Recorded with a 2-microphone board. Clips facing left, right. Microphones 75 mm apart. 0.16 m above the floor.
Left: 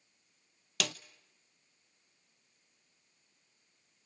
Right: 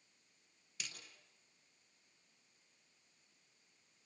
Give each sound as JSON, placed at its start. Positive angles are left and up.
{"t": 0.8, "sound": "a snare drum", "side_deg": 85, "distance_m": 0.7}